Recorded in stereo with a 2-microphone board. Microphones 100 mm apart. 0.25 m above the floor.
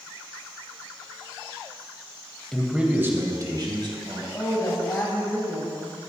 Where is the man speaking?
5° left (ahead or behind), 1.1 m; by 4.2 s 55° right (ahead or behind), 1.9 m.